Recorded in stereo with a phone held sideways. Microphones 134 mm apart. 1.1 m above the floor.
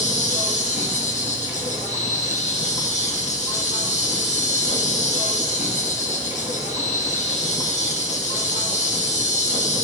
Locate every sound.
0.0 s an insect: 60° left (ahead or behind), 1.1 m